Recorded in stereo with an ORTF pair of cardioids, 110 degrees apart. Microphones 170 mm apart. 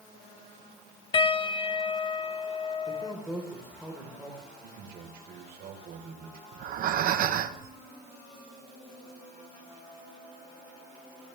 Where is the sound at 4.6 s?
60° right, 4 m.